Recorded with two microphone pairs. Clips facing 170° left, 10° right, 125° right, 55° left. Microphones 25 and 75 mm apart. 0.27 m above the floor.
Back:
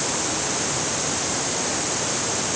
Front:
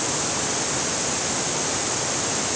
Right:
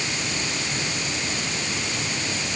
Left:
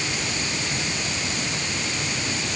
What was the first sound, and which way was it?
Only background noise.